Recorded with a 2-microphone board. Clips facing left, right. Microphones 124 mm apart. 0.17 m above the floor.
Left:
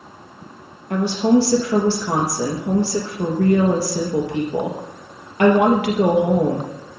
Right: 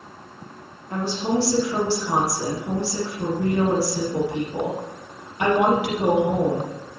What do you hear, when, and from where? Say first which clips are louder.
0.9 s a woman speaking: left 7 dB; 70° left (ahead or behind), 3.5 m